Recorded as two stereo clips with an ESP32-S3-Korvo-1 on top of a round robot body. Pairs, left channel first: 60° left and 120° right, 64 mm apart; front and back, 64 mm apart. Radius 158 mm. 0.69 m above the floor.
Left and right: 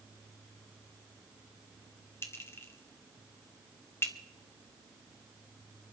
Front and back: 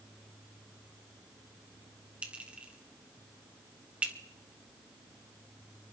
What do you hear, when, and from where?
2.2 s a clink: 110° left, 1.4 m